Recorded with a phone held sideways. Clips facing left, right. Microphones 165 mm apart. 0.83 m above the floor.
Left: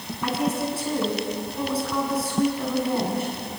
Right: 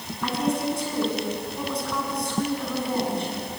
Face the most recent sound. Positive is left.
turn(degrees=5)  # may be behind; listen again after turning